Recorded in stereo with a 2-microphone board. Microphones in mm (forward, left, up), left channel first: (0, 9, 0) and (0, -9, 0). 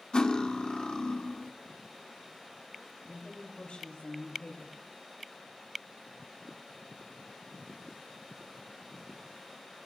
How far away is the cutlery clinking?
About 1.0 m.